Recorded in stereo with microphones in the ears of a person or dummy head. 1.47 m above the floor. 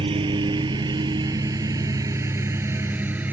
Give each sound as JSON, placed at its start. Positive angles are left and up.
{"t": 0.0, "sound": "a lawn mower", "side_deg": -25}